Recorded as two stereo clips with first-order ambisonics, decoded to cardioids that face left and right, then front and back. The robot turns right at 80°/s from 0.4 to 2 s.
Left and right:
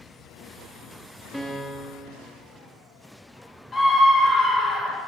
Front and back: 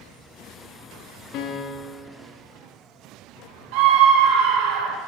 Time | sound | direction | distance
1.3 | a piano | 5° right | 0.9 m
3.7 | a scream | 170° left | 1.7 m